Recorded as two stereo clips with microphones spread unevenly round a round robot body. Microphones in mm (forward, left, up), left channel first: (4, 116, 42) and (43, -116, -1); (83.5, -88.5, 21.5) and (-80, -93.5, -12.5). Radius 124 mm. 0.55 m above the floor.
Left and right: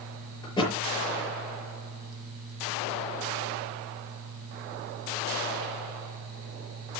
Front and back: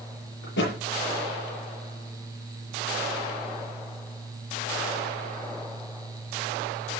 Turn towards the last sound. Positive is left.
turn(degrees=30)